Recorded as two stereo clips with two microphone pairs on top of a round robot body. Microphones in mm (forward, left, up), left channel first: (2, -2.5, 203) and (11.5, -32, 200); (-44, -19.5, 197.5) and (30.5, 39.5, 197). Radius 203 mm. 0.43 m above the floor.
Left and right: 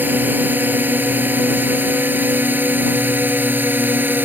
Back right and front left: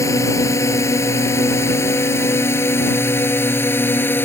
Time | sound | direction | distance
0.0 | a drone | 85° right | ?